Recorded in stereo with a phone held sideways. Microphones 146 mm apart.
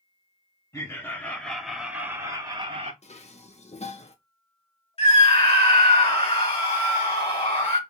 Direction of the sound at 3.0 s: 45° left (ahead or behind).